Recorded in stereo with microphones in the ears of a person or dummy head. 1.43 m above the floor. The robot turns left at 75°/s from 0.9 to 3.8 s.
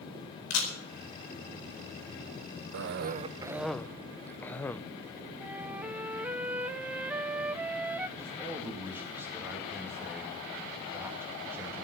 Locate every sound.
0.5 s a camera shutter: 80° left, 4.5 m
2.7 s a cough: 105° right, 0.6 m; by 4.8 s 175° left, 0.6 m
5.4 s a flute: 10° right (ahead or behind), 0.6 m
8.2 s a man speaking: 15° right (ahead or behind), 2.5 m